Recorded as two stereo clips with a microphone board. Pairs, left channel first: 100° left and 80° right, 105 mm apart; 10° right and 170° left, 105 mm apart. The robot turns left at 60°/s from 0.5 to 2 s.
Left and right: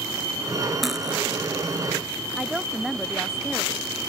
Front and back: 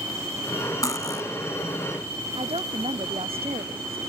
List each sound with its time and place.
0.8 s cutlery clinking: 10° left; by 1.2 s 15° right
2.4 s a woman speaking: 170° right